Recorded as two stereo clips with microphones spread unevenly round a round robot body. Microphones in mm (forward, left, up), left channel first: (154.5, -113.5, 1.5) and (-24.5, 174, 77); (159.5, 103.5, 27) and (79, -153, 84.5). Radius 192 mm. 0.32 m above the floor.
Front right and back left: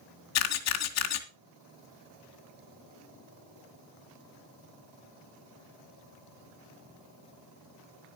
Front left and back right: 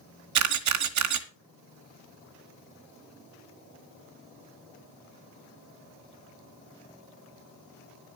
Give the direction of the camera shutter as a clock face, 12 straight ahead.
3 o'clock.